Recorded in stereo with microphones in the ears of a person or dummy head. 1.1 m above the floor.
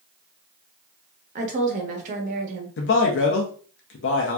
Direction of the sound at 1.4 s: 40° right (ahead or behind).